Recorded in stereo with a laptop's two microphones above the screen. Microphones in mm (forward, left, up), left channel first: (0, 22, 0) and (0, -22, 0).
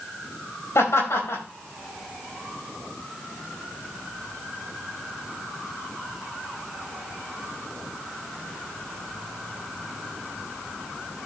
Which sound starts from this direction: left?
Laughter, at 0.8 s.